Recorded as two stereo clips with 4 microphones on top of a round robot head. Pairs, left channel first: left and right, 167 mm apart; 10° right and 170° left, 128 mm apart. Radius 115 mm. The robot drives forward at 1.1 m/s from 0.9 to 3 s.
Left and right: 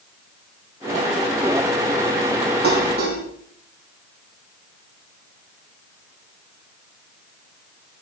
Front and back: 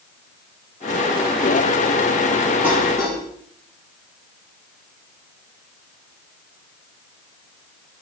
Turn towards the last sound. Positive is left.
turn(degrees=-115)